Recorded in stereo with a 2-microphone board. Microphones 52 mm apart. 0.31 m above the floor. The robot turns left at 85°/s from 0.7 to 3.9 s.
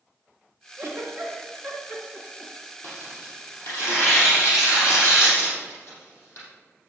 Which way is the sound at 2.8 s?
40° left (ahead or behind).